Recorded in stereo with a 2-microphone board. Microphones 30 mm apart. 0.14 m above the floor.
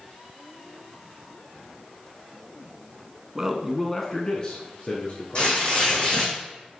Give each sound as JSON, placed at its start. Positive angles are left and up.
{"t": 3.4, "sound": "a man speaking", "side_deg": -20, "distance_m": 1.1}
{"t": 5.3, "sound": "tearing paper", "side_deg": 35, "distance_m": 3.5}